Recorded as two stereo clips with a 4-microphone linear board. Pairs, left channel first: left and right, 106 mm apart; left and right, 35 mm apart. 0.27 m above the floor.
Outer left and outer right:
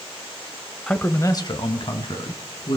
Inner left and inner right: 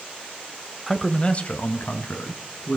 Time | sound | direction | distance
0.9 | a man speaking | 5° left (ahead or behind) | 1.0 m